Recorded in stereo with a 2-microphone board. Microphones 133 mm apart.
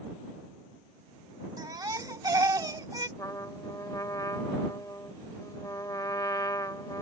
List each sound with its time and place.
1.6 s a baby crying: 25° right (ahead or behind)
3.2 s a trumpet: 25° left (ahead or behind)